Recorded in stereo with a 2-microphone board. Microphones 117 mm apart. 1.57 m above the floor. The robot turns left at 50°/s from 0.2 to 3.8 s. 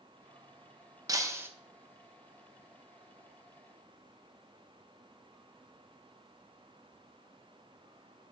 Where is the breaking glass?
30° right (ahead or behind), 0.8 m; by 1.5 s 20° right (ahead or behind), 0.8 m.